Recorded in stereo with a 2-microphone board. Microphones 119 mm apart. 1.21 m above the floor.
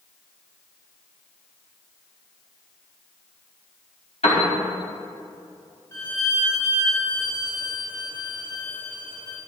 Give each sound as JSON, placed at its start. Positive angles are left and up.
{"t": 4.2, "sound": "a piano", "side_deg": 75, "distance_m": 4.5}
{"t": 5.9, "sound": "a violin", "side_deg": 25, "distance_m": 4.0}